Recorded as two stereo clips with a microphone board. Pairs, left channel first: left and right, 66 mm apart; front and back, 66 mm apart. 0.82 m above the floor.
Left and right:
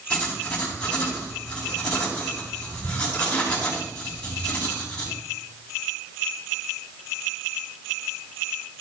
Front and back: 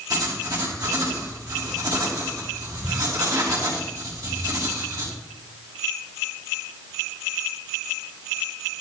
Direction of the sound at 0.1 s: 165° left.